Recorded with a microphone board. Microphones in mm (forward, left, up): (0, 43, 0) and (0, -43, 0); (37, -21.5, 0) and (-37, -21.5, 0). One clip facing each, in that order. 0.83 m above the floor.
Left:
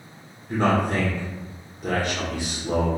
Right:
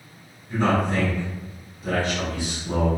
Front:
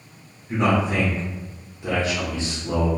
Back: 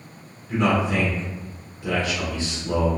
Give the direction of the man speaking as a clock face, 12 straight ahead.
10 o'clock.